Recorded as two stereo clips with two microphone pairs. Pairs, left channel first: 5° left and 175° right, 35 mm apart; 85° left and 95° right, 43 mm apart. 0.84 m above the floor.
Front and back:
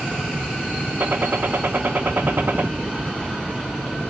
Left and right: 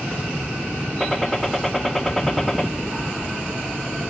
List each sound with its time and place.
1.0 s a gunshot: straight behind, 1.0 m